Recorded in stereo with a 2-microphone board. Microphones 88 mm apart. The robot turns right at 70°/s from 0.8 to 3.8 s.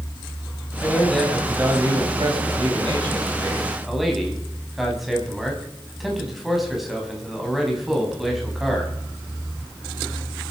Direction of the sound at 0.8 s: 150° left.